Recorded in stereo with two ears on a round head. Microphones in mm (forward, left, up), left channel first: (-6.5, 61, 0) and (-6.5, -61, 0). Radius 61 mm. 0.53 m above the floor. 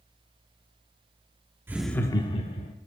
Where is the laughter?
15° right (ahead or behind), 0.8 m; by 2.7 s 55° left (ahead or behind), 1.5 m.